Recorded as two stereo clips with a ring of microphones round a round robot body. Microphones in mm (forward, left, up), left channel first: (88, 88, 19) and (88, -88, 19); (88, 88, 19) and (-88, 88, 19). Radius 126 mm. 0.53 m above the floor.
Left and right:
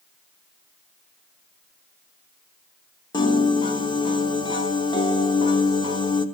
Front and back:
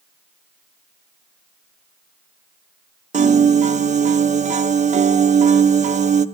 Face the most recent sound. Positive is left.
turn(degrees=150)